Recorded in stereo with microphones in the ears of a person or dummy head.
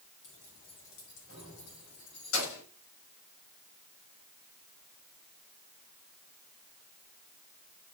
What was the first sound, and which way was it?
Keys jangling, 65° left (ahead or behind).